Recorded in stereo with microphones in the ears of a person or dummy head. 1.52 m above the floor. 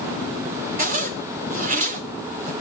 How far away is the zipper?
About 1.3 m.